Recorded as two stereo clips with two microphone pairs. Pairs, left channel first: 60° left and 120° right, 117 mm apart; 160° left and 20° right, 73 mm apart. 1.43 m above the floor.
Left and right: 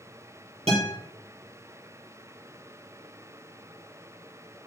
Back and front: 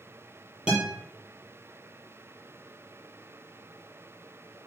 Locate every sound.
0.7 s a guitar: 95° right, 6 m